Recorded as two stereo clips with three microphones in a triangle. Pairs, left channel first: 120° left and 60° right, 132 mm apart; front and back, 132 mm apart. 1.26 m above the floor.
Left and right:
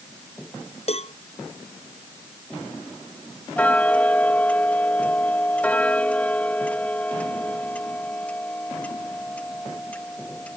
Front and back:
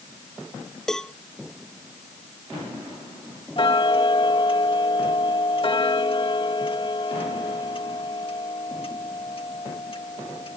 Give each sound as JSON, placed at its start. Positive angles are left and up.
{"t": 0.9, "sound": "a cowbell", "azimuth_deg": 85}
{"t": 3.6, "sound": "ticking", "azimuth_deg": 40}